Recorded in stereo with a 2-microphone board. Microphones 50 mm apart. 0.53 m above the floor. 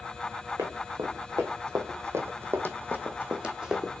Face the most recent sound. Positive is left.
turn(degrees=-10)  # may be behind; listen again after turning